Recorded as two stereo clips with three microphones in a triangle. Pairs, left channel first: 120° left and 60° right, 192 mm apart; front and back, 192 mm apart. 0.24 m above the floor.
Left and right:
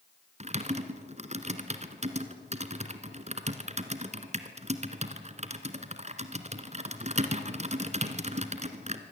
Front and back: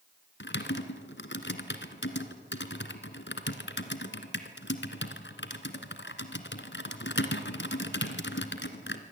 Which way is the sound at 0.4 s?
5° right.